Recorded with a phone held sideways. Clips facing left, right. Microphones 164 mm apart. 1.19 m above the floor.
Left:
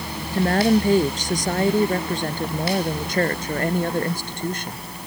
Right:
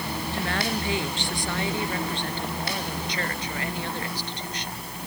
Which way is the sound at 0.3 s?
40° left (ahead or behind).